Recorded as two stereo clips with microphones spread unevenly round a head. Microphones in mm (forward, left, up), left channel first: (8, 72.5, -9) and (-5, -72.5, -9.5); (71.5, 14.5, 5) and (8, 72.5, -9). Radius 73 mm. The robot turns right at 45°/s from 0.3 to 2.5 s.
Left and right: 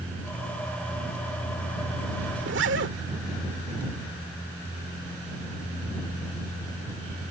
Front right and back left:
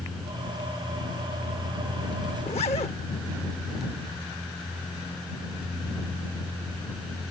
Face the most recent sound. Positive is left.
turn(degrees=-90)